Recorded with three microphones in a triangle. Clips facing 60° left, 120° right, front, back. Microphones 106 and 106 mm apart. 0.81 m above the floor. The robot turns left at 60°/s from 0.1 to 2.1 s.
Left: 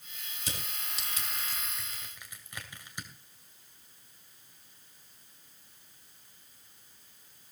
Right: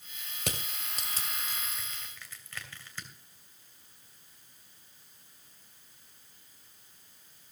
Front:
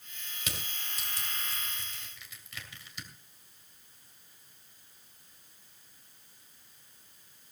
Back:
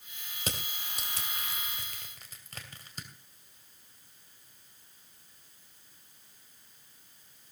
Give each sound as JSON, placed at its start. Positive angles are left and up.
{"t": 0.4, "sound": "crushing", "azimuth_deg": -125, "distance_m": 2.5}